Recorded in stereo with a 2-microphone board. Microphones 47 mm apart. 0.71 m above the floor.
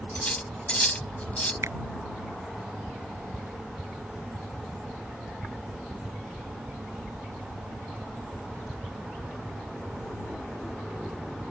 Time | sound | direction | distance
0.1 | cutlery clinking | 25° left (ahead or behind) | ?
1.6 | a finger snap | 85° right | ?